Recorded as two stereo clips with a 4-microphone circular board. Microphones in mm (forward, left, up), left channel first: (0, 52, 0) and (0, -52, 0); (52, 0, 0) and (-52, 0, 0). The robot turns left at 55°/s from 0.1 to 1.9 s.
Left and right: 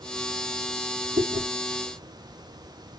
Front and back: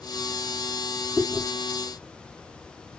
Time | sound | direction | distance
1.2 | chewing | 70° right | 6 m